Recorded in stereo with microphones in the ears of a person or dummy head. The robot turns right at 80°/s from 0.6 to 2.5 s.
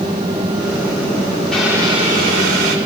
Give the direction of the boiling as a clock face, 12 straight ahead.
6 o'clock.